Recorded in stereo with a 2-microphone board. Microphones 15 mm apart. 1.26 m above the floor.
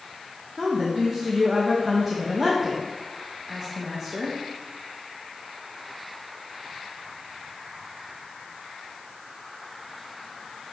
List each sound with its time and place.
0.6 s a woman speaking: 20° right (ahead or behind), 1.1 m